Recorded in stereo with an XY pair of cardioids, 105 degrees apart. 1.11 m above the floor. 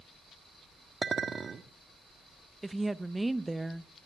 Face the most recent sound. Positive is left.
turn(degrees=-10)